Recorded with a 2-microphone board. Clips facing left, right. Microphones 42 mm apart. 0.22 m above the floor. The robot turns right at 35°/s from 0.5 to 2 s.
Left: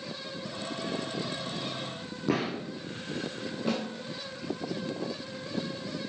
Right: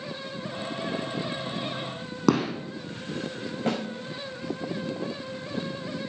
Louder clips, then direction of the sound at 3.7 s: Right 3 dB; 60° right (ahead or behind).